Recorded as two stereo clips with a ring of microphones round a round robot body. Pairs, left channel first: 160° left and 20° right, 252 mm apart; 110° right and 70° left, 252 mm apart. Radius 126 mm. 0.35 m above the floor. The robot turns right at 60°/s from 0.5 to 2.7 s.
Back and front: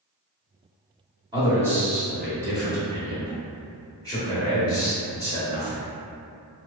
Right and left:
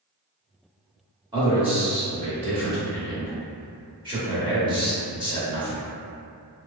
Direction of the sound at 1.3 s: 20° left.